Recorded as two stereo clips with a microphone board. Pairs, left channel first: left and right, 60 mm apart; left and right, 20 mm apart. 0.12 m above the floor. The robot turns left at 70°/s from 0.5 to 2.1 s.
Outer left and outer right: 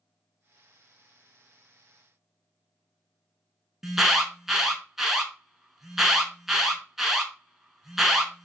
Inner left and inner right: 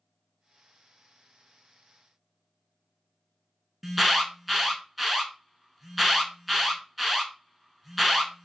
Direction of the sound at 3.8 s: 5° right (ahead or behind).